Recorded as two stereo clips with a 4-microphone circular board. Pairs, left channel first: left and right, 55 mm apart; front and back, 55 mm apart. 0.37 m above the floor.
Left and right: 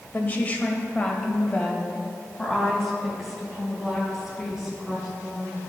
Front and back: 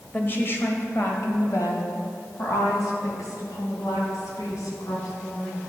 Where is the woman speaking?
40° left, 1.4 m; by 5.6 s 5° right, 3.5 m.